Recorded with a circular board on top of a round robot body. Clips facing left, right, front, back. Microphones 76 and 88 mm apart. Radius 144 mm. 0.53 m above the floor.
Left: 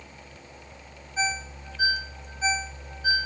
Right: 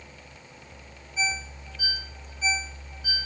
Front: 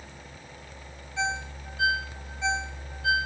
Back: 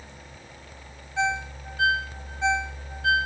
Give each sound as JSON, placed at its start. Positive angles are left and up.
{"t": 1.2, "sound": "a ringtone", "azimuth_deg": 145, "distance_m": 0.9}